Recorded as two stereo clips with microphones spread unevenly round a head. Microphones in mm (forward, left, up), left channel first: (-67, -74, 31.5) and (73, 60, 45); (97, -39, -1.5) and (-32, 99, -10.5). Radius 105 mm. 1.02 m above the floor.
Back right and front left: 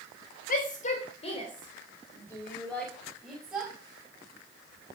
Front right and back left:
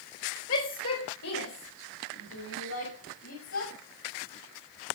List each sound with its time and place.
0.5 s a shout: 85° right, 4.5 m; by 3.7 s 40° right, 6 m